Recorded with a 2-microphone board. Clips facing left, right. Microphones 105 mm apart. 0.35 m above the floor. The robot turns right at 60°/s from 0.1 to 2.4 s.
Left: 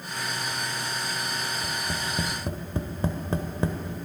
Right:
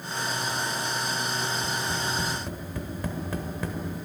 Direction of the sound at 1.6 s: 5° left (ahead or behind).